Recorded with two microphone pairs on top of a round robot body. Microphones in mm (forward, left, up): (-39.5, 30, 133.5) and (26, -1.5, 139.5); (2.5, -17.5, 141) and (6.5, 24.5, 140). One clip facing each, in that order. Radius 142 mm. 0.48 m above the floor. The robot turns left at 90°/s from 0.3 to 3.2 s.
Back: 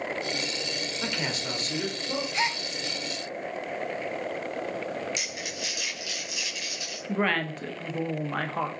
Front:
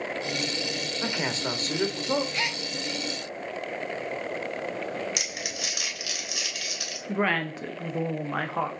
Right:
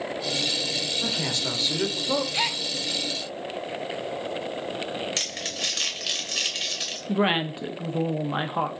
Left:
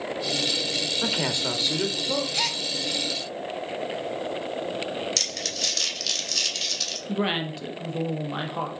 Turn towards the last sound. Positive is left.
turn(degrees=-115)